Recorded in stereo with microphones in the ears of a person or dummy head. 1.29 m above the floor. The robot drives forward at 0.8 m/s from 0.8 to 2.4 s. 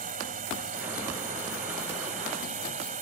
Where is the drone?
35° right (ahead or behind).